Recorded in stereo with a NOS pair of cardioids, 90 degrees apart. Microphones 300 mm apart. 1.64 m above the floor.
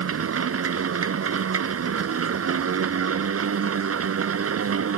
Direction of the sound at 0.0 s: 50° right.